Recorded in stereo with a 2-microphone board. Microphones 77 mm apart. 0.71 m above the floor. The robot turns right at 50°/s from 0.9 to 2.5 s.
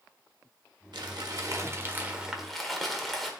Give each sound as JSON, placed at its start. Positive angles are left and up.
{"t": 0.9, "sound": "crumpling", "azimuth_deg": -75, "distance_m": 1.2}